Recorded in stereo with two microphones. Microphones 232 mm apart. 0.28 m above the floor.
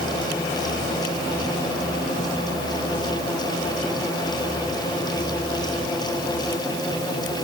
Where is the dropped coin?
No dropped coin in this recording.